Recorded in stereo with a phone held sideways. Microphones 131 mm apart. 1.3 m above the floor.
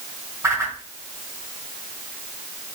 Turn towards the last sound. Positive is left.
turn(degrees=-25)  # may be behind; listen again after turning